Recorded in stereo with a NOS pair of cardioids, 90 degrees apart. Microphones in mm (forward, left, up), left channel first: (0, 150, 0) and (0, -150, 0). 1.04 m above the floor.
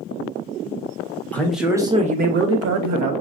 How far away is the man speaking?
About 1.3 m.